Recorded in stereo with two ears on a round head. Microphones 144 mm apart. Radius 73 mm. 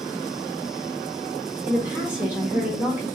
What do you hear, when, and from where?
1.7 s a woman speaking: 10° right (ahead or behind), 0.7 m